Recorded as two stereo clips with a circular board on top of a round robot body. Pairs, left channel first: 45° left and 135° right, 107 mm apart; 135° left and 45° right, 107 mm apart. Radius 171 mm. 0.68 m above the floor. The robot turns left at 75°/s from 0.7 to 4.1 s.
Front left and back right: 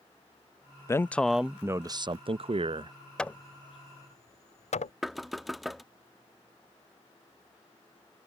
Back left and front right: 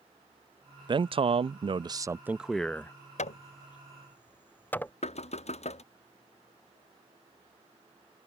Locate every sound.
0.9 s a man speaking: 15° right; by 3.0 s 165° right
3.2 s hammering: 130° left; by 4.9 s 60° left
5.0 s knocking: 135° left